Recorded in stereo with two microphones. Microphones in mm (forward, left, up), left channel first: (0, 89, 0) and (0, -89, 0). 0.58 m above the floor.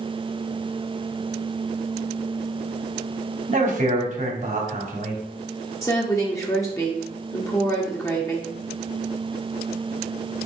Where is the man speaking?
45° right (ahead or behind), 1.3 m.